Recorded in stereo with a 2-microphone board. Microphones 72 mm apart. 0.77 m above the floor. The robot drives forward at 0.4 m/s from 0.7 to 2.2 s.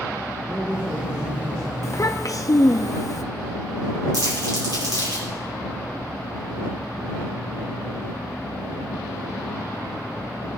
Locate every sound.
0.5 s a man speaking: 40° right (ahead or behind), 2.5 m; by 1.7 s 35° right (ahead or behind), 2.5 m
1.8 s a child speaking: 45° left (ahead or behind), 0.5 m; by 3.2 s 50° left (ahead or behind), 0.5 m
4.1 s crumpling: 70° right (ahead or behind), 4.5 m